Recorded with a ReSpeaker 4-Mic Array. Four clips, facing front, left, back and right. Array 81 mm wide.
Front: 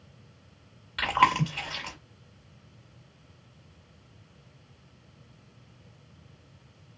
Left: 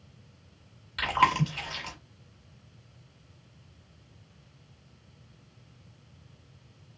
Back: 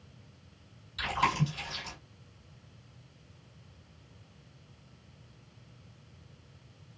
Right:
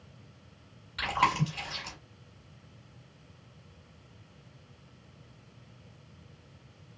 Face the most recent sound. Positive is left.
turn(degrees=15)